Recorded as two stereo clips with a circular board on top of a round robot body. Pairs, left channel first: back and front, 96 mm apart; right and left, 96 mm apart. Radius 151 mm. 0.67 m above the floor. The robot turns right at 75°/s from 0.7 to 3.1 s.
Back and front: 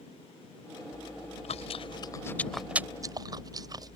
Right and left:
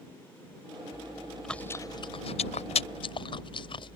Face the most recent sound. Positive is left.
turn(degrees=-50)